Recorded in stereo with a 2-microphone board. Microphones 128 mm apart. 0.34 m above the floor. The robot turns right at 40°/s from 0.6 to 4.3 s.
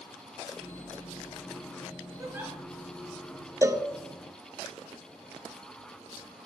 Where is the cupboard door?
No cupboard door in this recording.